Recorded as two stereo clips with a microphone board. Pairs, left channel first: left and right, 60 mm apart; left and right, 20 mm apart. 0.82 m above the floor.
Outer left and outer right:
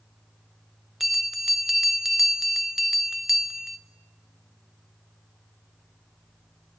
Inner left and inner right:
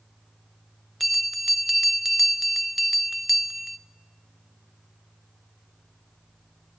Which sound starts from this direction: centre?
A bell, at 1.0 s.